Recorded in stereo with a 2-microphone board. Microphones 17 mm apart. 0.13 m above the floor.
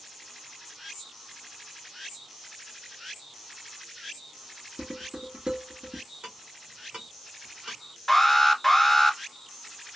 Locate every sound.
4.8 s dishes clattering: 70° right (ahead or behind), 2.5 m
6.2 s ticking: 75° right (ahead or behind), 1.7 m
8.1 s an alarm: 5° left (ahead or behind), 1.2 m